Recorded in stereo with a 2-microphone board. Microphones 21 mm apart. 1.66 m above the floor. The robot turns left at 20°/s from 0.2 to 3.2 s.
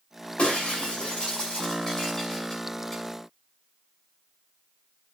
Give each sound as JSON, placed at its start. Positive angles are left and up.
{"t": 0.4, "sound": "breaking glass", "side_deg": 60, "distance_m": 7.5}